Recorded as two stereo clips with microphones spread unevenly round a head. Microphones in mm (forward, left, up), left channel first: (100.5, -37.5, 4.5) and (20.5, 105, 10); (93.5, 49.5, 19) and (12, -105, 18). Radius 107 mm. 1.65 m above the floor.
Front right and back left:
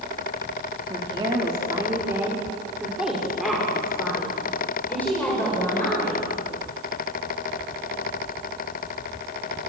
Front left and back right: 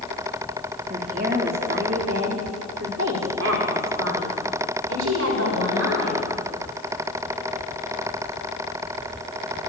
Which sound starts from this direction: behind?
A woman speaking, at 0.9 s.